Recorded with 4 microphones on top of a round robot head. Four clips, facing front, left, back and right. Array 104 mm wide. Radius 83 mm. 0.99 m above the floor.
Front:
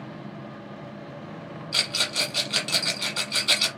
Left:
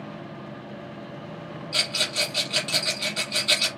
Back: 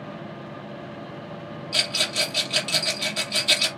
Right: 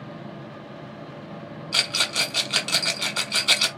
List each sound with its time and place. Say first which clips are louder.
1.7 s a rattle: right 2 dB, back 2 dB; 85° right, 1.3 m